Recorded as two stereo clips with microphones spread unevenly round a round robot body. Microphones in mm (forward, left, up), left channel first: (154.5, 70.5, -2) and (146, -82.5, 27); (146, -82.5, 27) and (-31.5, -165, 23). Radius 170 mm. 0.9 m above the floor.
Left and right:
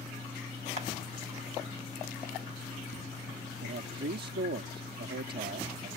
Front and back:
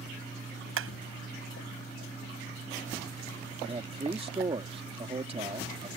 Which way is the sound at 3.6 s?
95° right.